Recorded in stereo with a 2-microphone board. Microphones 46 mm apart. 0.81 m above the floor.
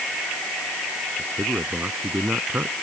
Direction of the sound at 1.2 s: 50° right (ahead or behind).